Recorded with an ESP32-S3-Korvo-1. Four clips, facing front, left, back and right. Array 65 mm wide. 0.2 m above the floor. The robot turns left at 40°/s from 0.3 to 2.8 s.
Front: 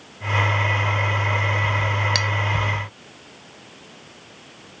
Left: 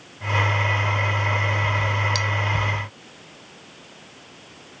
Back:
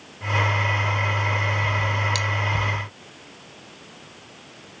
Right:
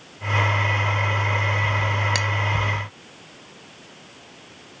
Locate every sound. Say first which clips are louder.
2.1 s cutlery clinking: right 1 dB, front 2 dB; 50° right; by 2.3 s 60° right